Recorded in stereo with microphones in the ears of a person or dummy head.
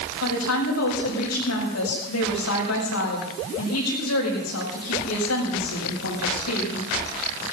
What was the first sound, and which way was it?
A woman speaking, 85° left.